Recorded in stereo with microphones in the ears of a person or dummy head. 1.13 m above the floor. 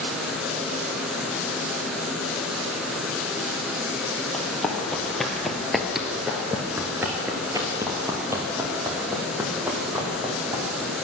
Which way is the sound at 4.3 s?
5° left (ahead or behind).